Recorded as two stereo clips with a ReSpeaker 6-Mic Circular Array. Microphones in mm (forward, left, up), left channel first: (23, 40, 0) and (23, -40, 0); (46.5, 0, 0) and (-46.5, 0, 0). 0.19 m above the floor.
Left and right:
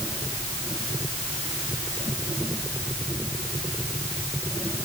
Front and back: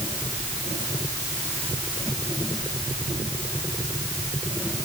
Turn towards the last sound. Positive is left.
No sound to turn to.